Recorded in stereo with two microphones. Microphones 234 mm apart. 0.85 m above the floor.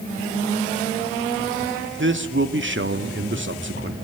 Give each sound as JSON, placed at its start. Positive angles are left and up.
{"t": 2.0, "sound": "a man speaking", "side_deg": -55, "distance_m": 2.5}